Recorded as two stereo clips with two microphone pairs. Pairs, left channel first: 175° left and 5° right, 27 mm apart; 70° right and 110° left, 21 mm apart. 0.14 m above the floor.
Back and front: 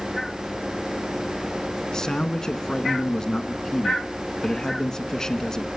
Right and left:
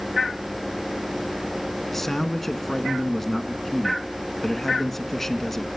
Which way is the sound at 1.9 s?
135° right.